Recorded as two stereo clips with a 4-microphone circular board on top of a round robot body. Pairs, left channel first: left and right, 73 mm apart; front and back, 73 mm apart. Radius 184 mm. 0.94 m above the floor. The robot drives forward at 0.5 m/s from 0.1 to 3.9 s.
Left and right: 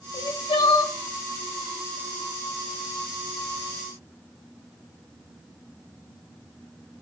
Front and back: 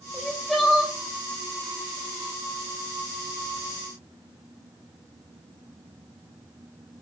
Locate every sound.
0.1 s crying: 80° left, 1.2 m; by 0.9 s 100° left, 1.2 m